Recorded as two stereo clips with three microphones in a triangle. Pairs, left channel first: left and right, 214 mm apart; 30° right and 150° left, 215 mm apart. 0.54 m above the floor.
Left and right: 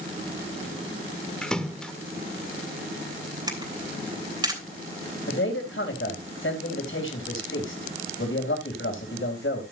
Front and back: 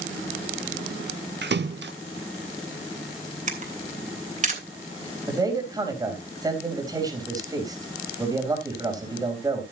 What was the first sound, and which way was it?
A splash, 175° left.